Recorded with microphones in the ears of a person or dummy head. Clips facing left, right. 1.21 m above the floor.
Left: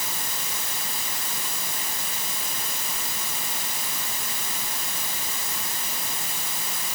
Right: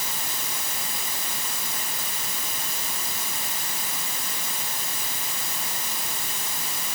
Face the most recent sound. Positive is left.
No sound to turn to.